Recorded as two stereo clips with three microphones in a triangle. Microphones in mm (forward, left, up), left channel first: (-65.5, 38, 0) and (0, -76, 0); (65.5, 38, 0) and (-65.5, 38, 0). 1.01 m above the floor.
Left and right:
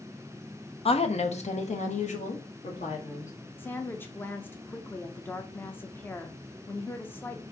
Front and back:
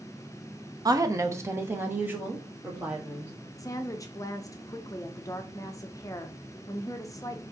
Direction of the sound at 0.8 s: 130° left.